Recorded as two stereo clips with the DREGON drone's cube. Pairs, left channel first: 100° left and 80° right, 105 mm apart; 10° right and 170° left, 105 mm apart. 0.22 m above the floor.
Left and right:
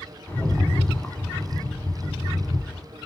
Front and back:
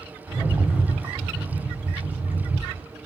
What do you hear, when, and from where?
0.3 s a rattle: 140° left, 1.2 m